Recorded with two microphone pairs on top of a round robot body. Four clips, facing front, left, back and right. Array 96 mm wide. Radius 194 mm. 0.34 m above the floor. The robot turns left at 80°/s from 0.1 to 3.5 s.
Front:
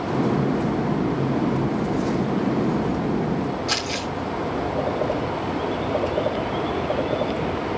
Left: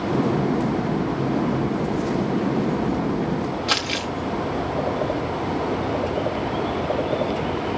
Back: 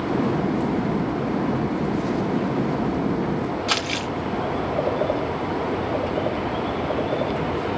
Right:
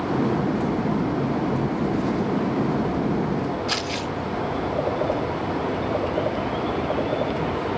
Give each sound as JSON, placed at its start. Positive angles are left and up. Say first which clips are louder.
{"t": 3.7, "sound": "crumpling", "louder": "left 1 dB, back 1 dB", "azimuth_deg": 130, "distance_m": 4.0}